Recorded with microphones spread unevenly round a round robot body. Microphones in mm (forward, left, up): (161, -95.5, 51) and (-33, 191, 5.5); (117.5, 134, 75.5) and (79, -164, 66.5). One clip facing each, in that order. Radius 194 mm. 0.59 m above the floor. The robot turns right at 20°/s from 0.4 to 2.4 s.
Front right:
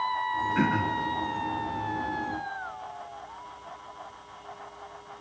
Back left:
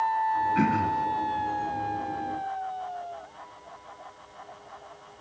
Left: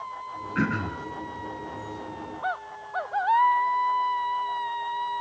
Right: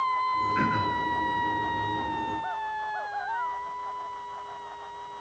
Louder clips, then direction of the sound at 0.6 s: Even, left 4 dB; 45° left.